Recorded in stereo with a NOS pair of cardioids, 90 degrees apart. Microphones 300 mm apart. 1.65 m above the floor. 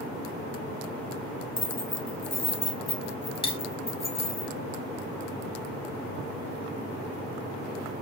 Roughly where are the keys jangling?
Ahead.